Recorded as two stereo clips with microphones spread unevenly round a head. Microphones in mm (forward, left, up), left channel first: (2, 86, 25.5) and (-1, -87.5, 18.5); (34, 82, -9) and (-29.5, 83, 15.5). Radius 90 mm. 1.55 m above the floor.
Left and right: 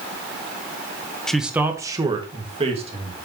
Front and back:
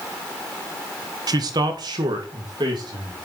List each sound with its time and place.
1.3 s a man speaking: 175° left, 1.0 m; by 3.1 s 145° right, 2.5 m